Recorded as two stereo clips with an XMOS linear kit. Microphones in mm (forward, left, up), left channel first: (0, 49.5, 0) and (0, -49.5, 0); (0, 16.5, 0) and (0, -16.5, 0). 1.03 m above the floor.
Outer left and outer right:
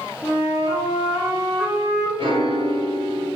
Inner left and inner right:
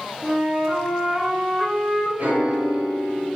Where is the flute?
40° left (ahead or behind), 1.1 m.